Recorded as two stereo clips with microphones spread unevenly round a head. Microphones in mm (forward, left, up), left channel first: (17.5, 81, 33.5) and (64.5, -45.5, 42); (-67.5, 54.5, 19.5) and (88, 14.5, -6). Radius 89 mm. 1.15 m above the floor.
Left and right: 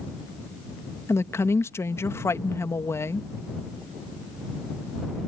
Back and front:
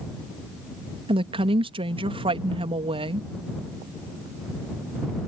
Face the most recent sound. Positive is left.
turn(degrees=40)